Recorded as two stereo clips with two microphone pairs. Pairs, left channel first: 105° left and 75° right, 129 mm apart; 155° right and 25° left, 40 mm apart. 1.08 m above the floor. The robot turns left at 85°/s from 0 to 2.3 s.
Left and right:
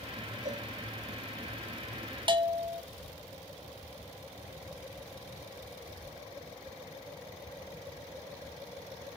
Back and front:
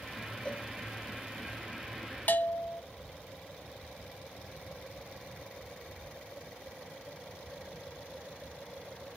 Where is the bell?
120° right, 0.9 m; by 2.8 s 125° right, 0.9 m.